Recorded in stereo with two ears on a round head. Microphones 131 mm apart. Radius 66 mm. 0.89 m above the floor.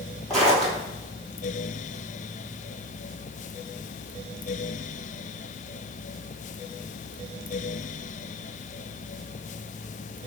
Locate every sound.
0.3 s footsteps: centre (ahead or behind), 1.5 m